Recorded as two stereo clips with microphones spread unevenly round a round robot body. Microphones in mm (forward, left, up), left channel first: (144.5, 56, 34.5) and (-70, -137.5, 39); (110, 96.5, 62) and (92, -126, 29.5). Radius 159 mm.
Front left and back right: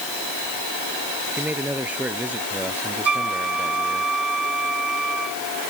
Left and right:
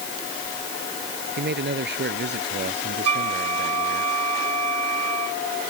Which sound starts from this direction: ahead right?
A man speaking, at 1.4 s.